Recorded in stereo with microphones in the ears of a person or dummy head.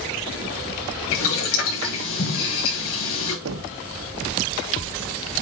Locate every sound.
1.1 s boiling: 80° left, 4 m
3.5 s knocking: 85° right, 0.9 m